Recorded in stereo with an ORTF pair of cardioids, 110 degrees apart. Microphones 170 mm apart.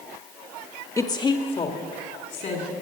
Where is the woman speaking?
20° left, 1.3 m; by 2.7 s 45° left, 3.5 m.